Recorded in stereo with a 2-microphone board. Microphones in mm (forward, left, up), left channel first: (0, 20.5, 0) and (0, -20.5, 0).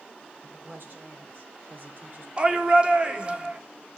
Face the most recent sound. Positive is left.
turn(degrees=-30)  # may be behind; listen again after turning